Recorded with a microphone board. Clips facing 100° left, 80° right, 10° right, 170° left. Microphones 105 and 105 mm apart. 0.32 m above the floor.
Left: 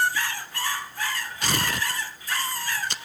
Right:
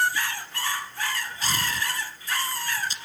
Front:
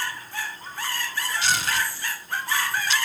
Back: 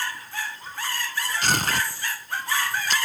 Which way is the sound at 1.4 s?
130° left.